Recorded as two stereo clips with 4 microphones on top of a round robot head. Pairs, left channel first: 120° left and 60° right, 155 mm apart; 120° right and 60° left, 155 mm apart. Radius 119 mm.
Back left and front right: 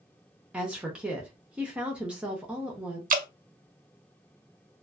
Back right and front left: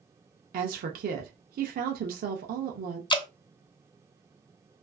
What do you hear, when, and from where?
0.5 s a woman speaking: 25° left, 0.5 m
3.1 s dripping: 65° right, 0.5 m